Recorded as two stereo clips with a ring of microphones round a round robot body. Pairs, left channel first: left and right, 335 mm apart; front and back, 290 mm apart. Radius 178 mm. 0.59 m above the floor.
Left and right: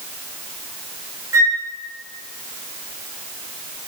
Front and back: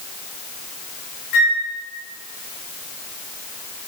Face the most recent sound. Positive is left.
turn(degrees=-10)